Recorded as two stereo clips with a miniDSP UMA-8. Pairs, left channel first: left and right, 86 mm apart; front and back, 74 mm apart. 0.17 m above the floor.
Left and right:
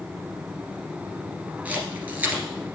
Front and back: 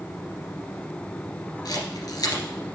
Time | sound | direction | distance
1.6 | a camera shutter | 20° right | 1.9 m